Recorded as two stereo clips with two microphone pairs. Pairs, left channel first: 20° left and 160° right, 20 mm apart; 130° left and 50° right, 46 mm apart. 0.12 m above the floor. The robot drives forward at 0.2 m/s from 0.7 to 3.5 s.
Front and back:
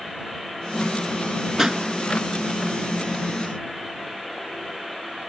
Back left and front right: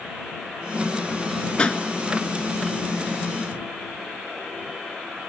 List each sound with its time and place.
1.6 s a pop: 165° left, 0.6 m; by 1.8 s 170° left, 0.7 m